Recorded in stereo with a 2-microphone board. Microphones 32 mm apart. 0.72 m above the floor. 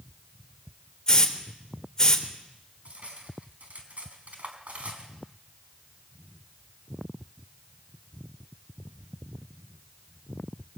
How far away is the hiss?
About 3 m.